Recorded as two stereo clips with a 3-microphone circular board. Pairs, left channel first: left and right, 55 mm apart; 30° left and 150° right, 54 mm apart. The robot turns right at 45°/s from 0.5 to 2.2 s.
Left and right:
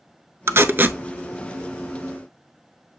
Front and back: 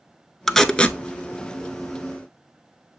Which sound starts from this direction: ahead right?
Tape being pulled, at 0.5 s.